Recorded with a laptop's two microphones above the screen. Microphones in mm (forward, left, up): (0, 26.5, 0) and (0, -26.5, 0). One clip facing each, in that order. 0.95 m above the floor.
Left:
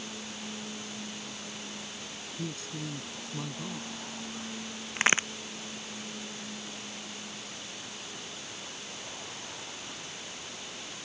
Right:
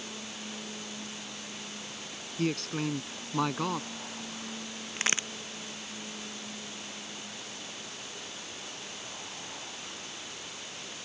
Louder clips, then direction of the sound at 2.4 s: Right 8 dB; 70° right (ahead or behind).